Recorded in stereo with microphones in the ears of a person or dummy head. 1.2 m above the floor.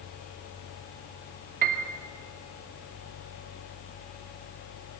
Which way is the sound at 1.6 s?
50° right (ahead or behind).